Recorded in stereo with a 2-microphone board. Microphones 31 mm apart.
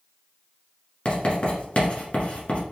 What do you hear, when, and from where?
1.1 s writing: 40° left (ahead or behind), 1.4 m